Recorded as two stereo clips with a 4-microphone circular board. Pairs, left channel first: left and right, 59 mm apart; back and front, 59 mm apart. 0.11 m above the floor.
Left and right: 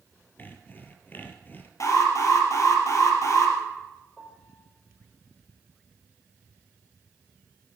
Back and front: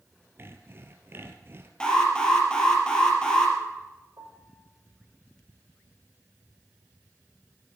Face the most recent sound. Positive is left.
turn(degrees=5)